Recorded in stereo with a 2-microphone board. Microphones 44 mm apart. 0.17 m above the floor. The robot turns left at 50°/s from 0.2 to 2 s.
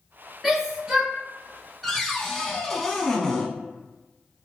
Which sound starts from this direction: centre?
A cupboard door, at 1.8 s.